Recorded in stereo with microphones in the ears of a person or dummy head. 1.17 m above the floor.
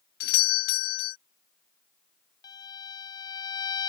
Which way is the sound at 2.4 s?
20° left (ahead or behind).